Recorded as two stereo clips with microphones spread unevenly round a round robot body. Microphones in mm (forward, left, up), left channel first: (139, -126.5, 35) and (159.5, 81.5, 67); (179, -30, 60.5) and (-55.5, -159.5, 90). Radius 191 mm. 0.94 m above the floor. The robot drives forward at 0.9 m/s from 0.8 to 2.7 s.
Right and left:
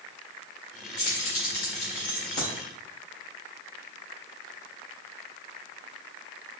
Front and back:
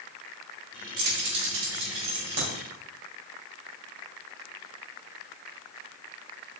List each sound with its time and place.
1.0 s keys jangling: 155° right, 1.3 m; by 2.5 s 170° right, 2.5 m